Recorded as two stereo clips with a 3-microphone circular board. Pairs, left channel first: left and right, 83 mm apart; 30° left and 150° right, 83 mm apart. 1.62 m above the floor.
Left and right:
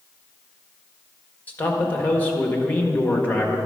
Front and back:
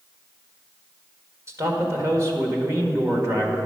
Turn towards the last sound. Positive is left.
turn(degrees=160)